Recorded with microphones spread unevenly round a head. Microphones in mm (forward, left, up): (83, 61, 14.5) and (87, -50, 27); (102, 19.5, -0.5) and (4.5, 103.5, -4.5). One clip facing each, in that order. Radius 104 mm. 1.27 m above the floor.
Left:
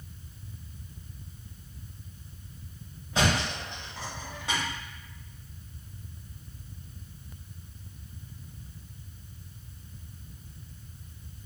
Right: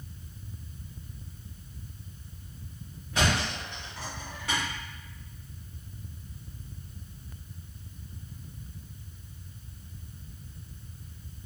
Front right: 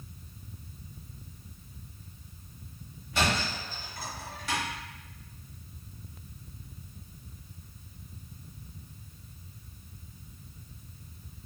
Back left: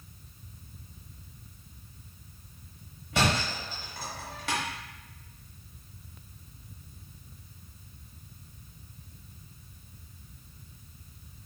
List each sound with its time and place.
3.1 s a thud: 170° left, 1.0 m